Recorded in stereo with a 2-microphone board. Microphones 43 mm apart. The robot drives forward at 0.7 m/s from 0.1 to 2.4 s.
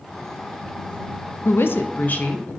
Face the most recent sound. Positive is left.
turn(degrees=35)  # may be behind; listen again after turning